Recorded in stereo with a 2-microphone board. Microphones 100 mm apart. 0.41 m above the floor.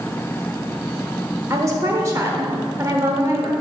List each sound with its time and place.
1.5 s a woman speaking: 30° right (ahead or behind), 1.0 m